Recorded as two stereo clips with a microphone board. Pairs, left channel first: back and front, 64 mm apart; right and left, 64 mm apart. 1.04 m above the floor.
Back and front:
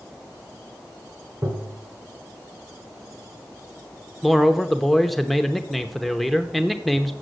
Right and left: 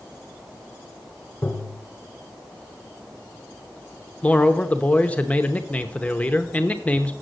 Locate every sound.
1.4 s tapping: 40° right, 1.7 m
4.2 s a man speaking: 95° right, 0.8 m